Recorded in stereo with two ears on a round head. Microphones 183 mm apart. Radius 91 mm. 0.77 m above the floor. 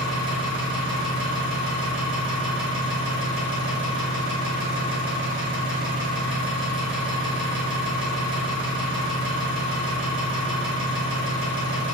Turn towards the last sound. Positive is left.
turn(degrees=-60)  # may be behind; listen again after turning